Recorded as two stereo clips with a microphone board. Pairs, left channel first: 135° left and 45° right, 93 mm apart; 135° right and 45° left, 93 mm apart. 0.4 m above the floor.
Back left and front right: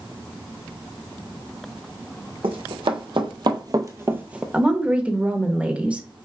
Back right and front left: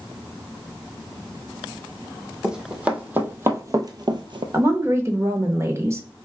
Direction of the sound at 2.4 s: 35° right.